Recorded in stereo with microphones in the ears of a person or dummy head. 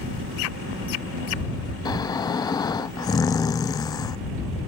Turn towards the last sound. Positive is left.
turn(degrees=15)  # may be behind; listen again after turning